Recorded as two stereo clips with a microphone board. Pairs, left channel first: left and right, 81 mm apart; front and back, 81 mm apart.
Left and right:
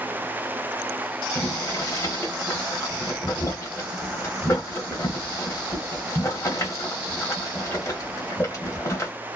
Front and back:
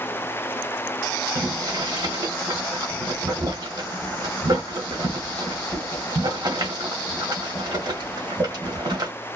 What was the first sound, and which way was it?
Boiling, 145° left.